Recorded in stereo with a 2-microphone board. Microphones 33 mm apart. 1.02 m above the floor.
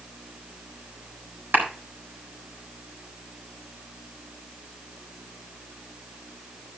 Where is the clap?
75° right (ahead or behind), 4 m.